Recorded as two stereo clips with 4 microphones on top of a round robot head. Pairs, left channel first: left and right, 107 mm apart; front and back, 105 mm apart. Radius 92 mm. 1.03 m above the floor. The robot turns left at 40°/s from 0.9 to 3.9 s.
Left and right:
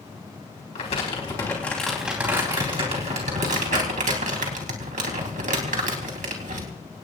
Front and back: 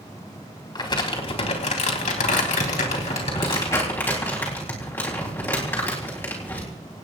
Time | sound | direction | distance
0.8 | crumpling | 40° left | 3.5 m